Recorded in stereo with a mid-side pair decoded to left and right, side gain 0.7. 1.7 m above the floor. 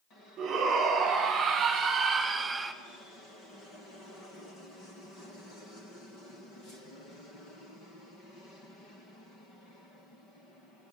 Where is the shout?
45° right, 3.5 m; by 2.7 s 15° right, 1.2 m.